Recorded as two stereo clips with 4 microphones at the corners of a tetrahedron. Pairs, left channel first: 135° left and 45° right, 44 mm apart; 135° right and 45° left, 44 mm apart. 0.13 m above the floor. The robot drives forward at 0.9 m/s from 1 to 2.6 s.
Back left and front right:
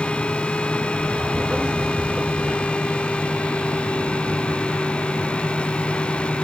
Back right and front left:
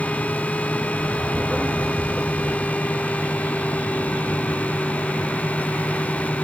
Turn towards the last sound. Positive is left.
No sound to turn to.